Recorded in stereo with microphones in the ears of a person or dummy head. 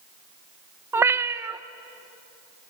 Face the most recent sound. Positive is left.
turn(degrees=-10)  # may be behind; listen again after turning